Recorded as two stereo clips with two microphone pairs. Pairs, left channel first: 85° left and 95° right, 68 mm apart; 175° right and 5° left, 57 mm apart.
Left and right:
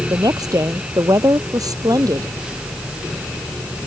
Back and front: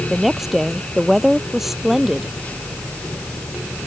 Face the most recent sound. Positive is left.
turn(degrees=-80)